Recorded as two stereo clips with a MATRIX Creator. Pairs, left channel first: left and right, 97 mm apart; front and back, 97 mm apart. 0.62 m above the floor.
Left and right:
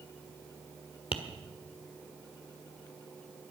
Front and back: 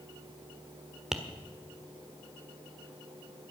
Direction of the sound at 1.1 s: 95° left.